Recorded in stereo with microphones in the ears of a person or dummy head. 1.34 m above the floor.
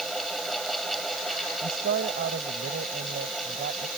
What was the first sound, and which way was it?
A fan, centre (ahead or behind).